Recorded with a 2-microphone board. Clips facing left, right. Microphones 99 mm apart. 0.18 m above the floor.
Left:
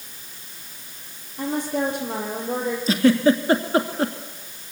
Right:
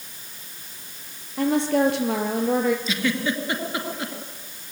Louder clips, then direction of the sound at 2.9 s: Left 8 dB; 40° left (ahead or behind).